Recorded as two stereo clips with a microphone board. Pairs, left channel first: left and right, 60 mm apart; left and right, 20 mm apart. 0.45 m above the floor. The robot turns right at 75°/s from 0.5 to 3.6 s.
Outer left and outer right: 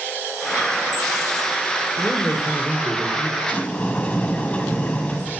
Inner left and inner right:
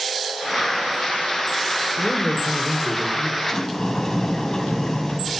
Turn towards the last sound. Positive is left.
turn(degrees=20)  # may be behind; listen again after turning